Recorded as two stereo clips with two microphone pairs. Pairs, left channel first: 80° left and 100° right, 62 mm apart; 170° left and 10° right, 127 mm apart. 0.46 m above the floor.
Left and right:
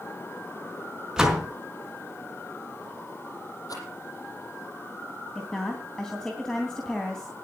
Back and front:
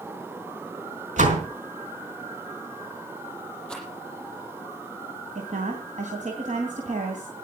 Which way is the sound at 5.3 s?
Straight ahead.